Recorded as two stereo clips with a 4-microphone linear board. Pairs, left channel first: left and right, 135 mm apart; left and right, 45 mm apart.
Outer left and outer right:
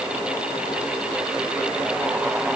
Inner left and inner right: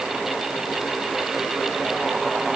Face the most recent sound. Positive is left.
No sound to turn to.